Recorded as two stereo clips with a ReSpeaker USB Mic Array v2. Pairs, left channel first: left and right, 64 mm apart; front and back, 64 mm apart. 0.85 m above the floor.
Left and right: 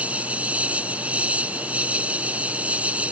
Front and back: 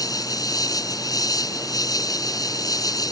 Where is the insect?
20° right.